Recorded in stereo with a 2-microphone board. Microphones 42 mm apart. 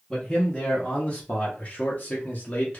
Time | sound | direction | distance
0.1 | a man speaking | 10° left (ahead or behind) | 1.1 m